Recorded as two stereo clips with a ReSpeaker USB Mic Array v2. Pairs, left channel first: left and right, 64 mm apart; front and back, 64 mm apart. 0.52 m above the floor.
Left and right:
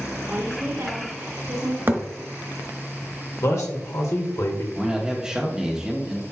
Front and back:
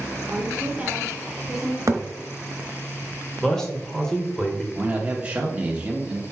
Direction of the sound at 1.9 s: 145° right.